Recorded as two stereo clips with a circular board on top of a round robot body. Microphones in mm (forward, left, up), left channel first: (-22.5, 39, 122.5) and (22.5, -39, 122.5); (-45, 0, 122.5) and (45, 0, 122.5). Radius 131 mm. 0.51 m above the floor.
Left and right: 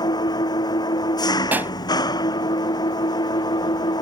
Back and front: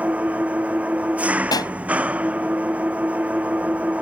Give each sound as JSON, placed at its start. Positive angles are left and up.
{"t": 0.0, "sound": "an engine running", "azimuth_deg": 75}
{"t": 1.5, "sound": "a pop", "azimuth_deg": -130}